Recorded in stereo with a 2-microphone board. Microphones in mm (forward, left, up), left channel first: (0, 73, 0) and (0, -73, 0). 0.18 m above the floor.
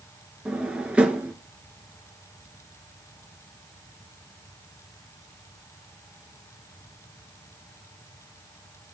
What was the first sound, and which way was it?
A drawer, 5° right (ahead or behind).